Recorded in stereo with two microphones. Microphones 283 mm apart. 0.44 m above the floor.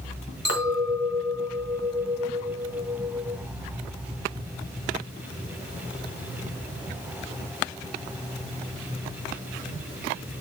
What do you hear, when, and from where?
0.5 s a clink: 60° right (ahead or behind), 1.4 m